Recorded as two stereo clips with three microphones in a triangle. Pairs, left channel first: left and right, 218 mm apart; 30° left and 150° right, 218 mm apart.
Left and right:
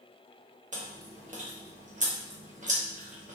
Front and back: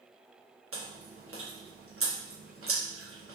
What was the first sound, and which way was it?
Chewing, 145° right.